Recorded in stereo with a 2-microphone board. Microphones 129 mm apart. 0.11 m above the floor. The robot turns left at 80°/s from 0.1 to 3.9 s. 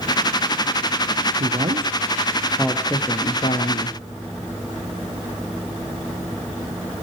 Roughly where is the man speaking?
Right.